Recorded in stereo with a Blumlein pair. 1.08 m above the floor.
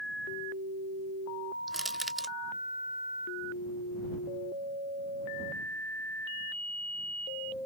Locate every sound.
1.7 s crushing: 10° right